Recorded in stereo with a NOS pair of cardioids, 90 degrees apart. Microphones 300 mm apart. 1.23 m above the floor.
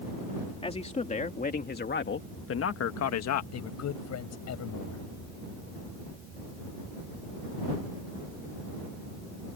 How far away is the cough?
No cough in this recording.